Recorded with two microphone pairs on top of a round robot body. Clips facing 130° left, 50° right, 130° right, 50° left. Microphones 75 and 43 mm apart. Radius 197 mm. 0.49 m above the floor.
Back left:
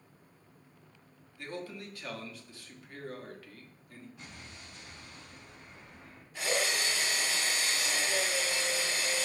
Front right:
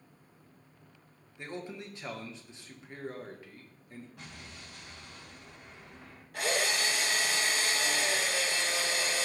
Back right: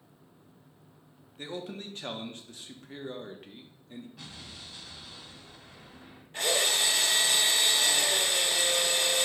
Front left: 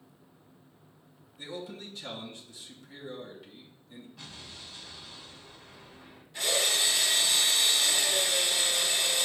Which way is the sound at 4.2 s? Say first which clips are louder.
Front right 1 dB, even; 50° right.